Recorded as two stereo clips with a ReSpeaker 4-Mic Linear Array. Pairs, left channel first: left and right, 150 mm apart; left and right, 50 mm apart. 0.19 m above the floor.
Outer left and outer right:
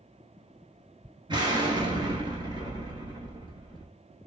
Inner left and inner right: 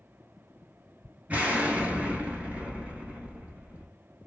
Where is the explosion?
30° right (ahead or behind), 0.9 m.